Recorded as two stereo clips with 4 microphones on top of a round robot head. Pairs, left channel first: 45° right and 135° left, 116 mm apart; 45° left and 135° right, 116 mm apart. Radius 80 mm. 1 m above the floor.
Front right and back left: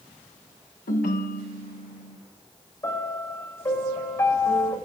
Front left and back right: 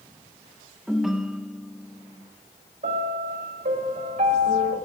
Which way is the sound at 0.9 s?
50° right.